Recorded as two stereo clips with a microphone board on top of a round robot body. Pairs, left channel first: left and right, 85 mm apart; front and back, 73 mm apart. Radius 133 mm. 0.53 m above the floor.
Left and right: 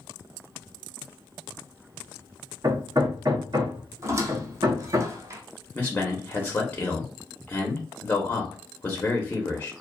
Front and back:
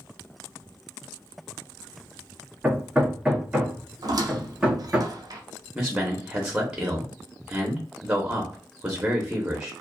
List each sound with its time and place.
2.6 s hammering: 105° right, 1.2 m
4.0 s a squeak: 150° right, 0.6 m
5.8 s a man speaking: 125° left, 1.0 m